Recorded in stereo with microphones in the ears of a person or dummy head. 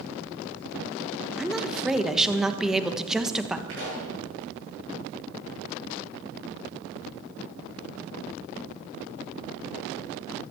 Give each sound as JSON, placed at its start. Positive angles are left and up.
{"t": 1.4, "sound": "a woman speaking", "side_deg": 0, "distance_m": 1.3}
{"t": 3.7, "sound": "a pop", "side_deg": -75, "distance_m": 8.5}